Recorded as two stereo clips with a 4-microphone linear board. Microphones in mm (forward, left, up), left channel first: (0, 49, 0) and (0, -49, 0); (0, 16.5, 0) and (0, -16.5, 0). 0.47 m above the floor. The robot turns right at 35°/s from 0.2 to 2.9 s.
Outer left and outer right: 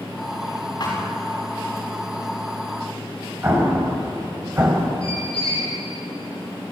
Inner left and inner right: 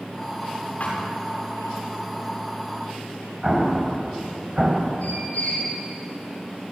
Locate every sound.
0.8 s a thud: 45° left (ahead or behind), 9 m; by 1.0 s 35° left (ahead or behind), 9 m
3.4 s an explosion: 25° right (ahead or behind), 3 m
5.0 s a squeak: 65° left (ahead or behind), 7.5 m